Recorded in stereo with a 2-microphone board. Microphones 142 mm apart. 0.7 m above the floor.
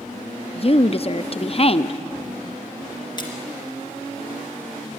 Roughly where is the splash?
Left.